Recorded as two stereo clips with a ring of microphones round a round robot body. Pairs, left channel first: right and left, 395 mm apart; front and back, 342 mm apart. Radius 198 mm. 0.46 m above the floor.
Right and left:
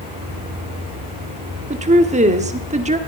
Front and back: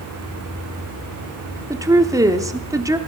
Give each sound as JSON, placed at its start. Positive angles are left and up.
{"t": 1.7, "sound": "a woman speaking", "azimuth_deg": 120, "distance_m": 1.1}